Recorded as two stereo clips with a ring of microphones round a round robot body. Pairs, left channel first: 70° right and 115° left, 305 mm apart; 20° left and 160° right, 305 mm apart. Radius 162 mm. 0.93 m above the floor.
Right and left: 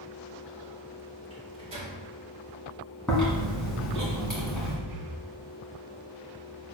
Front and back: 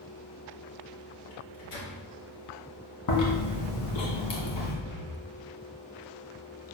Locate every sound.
1.3 s a microwave: 40° left, 1.9 m
3.1 s chewing: 20° left, 2 m
4.9 s breathing: 100° left, 1.2 m